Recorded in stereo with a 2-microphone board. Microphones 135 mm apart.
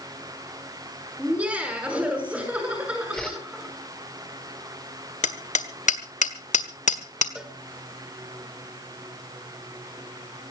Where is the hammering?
60° left (ahead or behind), 1.6 m.